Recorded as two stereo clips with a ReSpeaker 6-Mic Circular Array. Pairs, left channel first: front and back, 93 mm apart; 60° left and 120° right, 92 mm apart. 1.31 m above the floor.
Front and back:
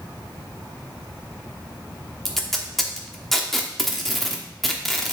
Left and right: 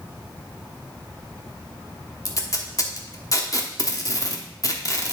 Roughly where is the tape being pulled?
Left.